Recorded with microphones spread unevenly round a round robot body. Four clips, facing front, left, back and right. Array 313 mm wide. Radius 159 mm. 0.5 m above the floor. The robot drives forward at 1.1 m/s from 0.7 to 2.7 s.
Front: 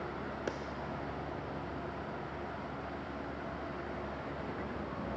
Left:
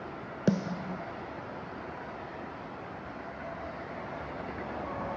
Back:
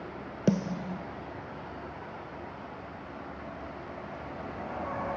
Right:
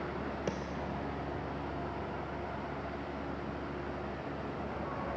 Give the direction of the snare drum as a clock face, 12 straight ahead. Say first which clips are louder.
Left 6 dB, back 15 dB; 7 o'clock.